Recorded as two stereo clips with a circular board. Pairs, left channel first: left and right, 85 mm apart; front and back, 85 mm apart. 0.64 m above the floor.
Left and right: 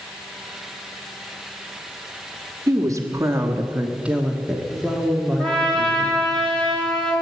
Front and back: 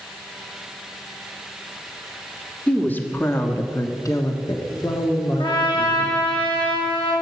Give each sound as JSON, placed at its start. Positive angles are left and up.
{"t": 2.7, "sound": "a woman speaking", "azimuth_deg": -70, "distance_m": 1.3}
{"t": 5.4, "sound": "a trumpet", "azimuth_deg": 10, "distance_m": 4.0}